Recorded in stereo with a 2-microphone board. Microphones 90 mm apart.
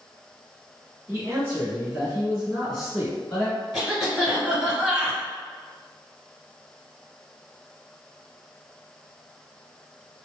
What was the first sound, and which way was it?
A man speaking, 30° right (ahead or behind).